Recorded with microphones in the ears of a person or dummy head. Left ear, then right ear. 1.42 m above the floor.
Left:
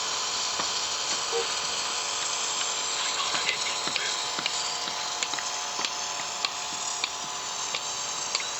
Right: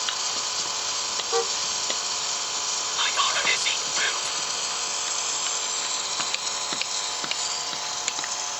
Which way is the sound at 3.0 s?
35° right (ahead or behind).